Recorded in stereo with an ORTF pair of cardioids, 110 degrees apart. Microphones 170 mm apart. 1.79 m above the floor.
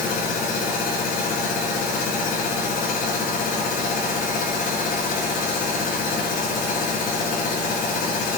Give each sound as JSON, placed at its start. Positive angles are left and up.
{"t": 0.0, "sound": "a machine running", "azimuth_deg": 55, "distance_m": 5.0}